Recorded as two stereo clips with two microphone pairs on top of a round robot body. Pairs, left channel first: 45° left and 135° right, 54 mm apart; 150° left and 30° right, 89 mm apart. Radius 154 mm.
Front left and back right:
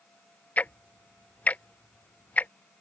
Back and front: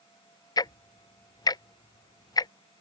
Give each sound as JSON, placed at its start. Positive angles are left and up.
{"t": 0.6, "sound": "ticking", "azimuth_deg": 105}